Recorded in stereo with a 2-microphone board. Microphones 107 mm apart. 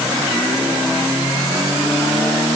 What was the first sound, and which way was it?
Only background noise.